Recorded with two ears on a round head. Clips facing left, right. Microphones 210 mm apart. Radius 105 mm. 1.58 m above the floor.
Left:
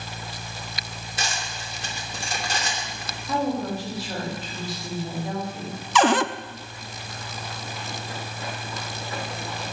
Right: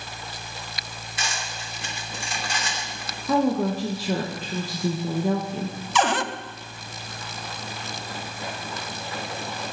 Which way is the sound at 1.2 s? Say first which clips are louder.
Left 1 dB; 35° left (ahead or behind).